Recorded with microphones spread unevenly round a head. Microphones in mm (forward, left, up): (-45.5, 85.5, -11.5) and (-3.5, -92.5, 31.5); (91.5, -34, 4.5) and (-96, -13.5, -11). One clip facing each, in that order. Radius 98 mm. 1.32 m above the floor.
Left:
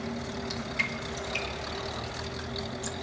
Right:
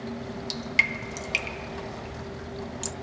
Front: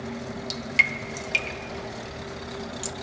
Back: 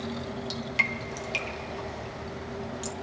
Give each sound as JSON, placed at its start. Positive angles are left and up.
{"t": 0.2, "sound": "dripping", "azimuth_deg": -70, "distance_m": 0.9}